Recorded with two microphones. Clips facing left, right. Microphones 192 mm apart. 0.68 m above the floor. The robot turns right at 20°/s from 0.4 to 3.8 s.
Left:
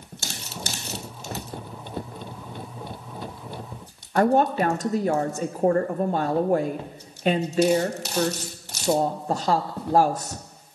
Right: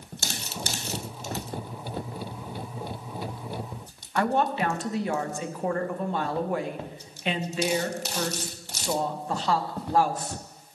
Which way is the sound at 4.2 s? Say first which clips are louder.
Left 5 dB; 40° left (ahead or behind).